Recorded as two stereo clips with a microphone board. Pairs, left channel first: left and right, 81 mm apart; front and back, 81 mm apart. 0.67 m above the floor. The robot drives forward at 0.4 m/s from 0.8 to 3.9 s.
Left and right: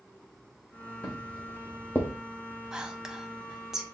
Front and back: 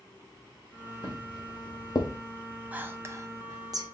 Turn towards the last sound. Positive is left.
turn(degrees=-175)